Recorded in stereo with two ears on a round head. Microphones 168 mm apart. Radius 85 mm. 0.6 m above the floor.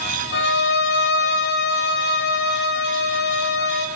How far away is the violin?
About 2.5 m.